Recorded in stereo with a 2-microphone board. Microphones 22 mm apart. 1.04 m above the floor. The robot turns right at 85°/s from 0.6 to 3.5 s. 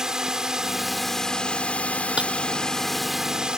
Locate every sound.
0.0 s a drone: 30° right; by 3.6 s 145° right
2.2 s breaking glass: 50° right (ahead or behind); by 2.3 s 35° right (ahead or behind)